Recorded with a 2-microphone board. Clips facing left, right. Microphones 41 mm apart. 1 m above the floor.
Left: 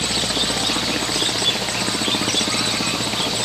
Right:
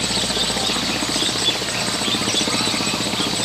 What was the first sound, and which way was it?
Only background noise.